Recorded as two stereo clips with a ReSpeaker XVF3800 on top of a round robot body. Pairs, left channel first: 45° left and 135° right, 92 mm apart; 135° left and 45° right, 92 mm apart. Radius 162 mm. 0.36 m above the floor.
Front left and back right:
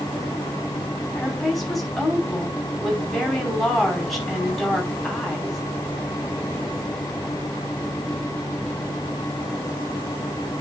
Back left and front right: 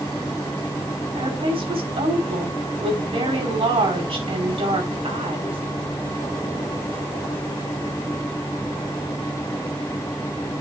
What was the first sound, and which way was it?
A woman speaking, 45° right.